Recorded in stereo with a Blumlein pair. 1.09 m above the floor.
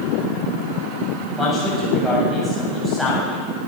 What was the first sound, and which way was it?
A man speaking, 5° left.